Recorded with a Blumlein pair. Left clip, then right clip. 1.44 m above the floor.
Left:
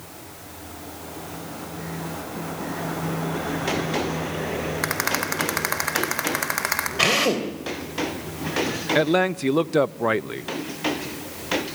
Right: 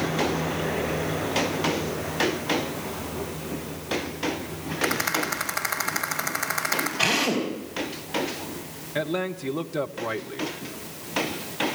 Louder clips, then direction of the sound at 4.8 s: Right 1 dB; 70° left.